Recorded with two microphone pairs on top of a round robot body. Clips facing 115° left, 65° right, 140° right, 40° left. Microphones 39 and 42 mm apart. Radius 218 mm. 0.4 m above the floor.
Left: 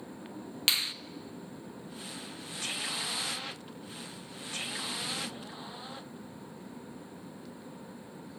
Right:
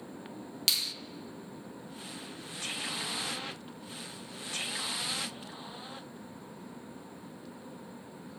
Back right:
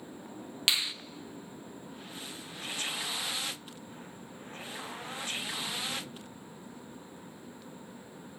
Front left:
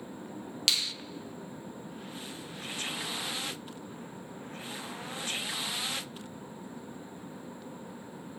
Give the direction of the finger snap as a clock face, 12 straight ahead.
7 o'clock.